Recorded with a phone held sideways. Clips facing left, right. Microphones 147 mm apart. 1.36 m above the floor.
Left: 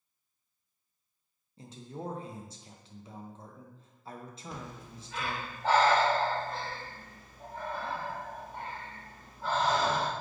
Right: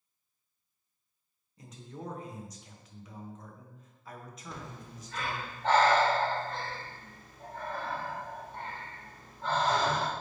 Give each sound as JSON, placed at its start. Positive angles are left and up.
{"t": 1.6, "sound": "a man speaking", "side_deg": 30, "distance_m": 0.6}
{"t": 4.5, "sound": "breathing", "side_deg": 5, "distance_m": 0.8}